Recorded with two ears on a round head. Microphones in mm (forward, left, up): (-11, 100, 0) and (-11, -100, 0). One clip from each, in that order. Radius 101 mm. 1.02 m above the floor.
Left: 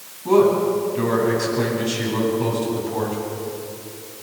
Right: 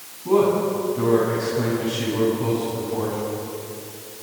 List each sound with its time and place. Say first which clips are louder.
0.2 s a man speaking: left 3 dB; 45° left (ahead or behind), 9 m